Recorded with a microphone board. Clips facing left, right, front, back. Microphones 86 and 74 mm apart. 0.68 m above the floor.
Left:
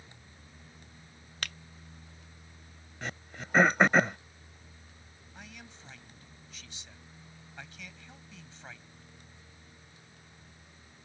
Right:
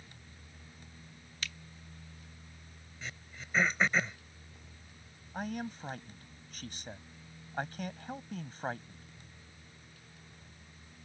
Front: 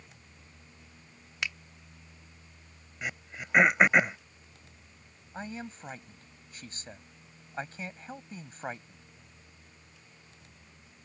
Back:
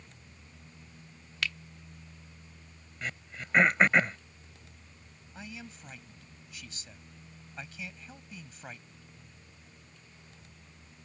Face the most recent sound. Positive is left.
turn(degrees=-50)